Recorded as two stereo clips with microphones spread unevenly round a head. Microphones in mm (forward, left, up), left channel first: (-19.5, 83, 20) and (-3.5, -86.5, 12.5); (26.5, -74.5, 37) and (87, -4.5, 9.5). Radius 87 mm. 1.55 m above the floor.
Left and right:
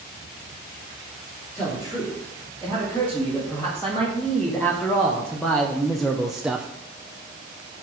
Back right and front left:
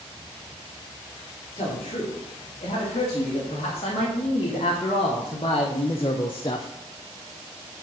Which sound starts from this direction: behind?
A man speaking, at 1.6 s.